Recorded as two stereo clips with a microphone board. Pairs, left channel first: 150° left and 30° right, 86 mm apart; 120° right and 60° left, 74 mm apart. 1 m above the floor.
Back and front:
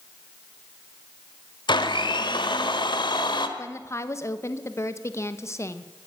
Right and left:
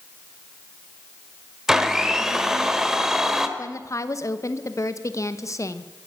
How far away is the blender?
About 1.2 m.